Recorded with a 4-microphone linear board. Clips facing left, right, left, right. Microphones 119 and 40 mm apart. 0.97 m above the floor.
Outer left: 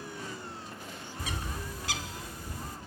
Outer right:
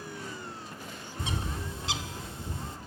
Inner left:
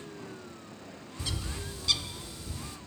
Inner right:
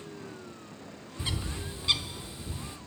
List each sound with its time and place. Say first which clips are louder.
1.2 s a bird: outer right 3 dB, inner right 2 dB; 25° right (ahead or behind), 0.6 m